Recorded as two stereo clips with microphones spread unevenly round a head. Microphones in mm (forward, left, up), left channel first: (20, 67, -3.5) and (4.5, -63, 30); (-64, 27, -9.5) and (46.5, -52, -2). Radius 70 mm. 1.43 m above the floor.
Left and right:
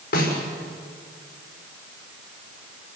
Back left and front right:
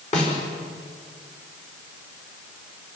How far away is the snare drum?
About 5.5 m.